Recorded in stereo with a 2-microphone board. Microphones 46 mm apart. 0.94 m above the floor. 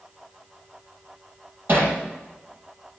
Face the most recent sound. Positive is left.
turn(degrees=-50)  # may be behind; listen again after turning